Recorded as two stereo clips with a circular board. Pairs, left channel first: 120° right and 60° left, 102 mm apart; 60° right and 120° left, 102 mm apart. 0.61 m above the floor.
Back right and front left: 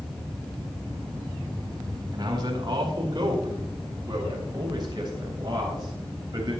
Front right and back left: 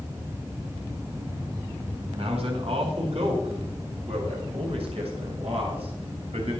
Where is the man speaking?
105° left, 4 m.